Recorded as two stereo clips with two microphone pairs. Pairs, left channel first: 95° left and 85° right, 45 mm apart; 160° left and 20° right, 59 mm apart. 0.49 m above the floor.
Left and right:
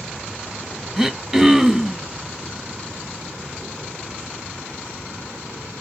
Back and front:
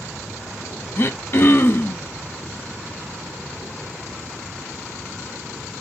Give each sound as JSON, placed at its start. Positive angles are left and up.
{"t": 1.0, "sound": "throat clearing", "azimuth_deg": -160, "distance_m": 0.6}